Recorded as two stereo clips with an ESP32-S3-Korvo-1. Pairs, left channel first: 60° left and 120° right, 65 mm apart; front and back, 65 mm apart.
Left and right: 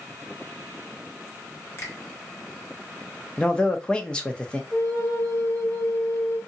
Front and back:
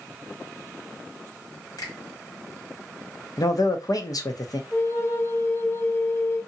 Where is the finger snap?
10° left, 1.3 m.